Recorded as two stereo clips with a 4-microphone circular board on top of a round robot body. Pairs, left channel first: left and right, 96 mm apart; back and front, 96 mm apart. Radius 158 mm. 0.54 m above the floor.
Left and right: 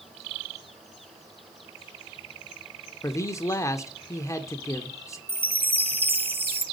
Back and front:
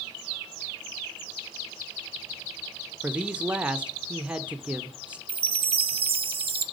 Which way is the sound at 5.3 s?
20° right.